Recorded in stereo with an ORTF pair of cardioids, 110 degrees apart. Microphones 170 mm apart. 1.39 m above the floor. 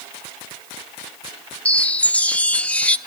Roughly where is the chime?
Ahead.